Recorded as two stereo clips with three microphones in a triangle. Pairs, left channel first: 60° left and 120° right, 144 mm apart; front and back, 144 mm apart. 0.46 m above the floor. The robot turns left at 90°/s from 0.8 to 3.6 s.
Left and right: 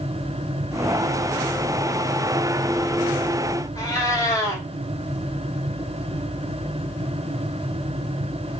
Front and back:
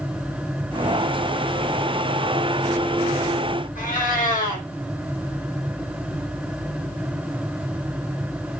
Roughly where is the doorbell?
No doorbell in this recording.